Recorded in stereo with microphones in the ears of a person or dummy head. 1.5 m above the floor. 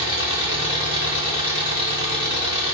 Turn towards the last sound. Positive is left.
turn(degrees=-30)  # may be behind; listen again after turning